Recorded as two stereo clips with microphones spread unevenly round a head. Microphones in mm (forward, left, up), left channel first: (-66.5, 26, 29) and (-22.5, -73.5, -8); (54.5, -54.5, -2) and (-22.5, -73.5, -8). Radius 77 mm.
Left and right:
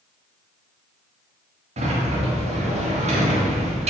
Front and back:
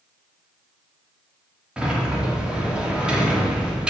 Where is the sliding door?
90° right, 3 m.